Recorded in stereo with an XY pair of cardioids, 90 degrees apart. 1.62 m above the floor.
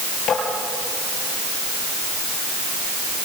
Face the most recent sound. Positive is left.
turn(degrees=70)